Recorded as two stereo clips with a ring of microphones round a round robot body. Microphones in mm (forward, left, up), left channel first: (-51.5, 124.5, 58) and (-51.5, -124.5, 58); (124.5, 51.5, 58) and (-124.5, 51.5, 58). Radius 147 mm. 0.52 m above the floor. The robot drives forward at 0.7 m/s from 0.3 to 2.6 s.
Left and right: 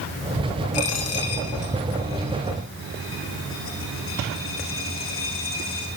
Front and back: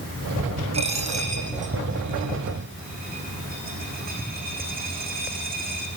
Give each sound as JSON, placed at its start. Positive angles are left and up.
{"t": 0.7, "sound": "a dropped coin", "azimuth_deg": 115, "distance_m": 5.0}